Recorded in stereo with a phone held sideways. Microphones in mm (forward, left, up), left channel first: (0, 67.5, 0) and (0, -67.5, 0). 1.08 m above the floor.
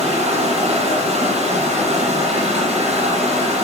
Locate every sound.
0.0 s running water: 50° right (ahead or behind), 7.5 m